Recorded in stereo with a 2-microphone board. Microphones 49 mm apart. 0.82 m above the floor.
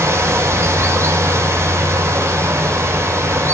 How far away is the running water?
About 3.5 m.